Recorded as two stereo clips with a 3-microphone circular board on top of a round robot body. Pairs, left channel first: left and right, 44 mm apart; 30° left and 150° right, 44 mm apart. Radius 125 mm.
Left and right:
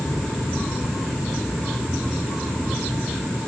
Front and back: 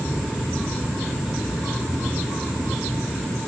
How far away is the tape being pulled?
I don't hear tape being pulled.